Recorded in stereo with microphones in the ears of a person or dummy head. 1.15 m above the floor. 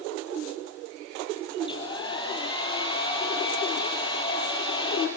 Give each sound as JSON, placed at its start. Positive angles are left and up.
{"t": 1.6, "sound": "a hair dryer", "side_deg": 30, "distance_m": 7.0}